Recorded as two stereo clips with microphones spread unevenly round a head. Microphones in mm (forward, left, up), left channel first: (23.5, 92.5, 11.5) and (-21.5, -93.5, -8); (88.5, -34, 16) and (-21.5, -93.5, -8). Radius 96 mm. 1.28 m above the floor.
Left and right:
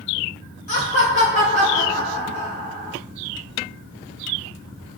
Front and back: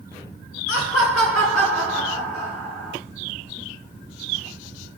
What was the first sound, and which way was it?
Laughter, 20° left.